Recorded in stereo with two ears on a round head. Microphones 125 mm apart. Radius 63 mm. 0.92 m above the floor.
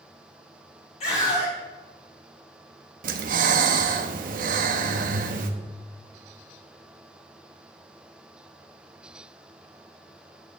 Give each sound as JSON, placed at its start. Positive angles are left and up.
{"t": 1.0, "sound": "a scream", "side_deg": 50, "distance_m": 1.6}
{"t": 3.0, "sound": "breathing", "side_deg": -65, "distance_m": 0.7}